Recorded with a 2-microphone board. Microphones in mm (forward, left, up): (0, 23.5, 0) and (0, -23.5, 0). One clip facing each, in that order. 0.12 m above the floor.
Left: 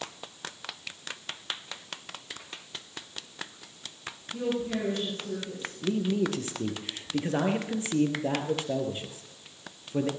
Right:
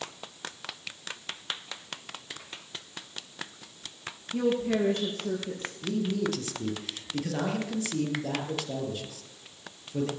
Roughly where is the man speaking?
Left.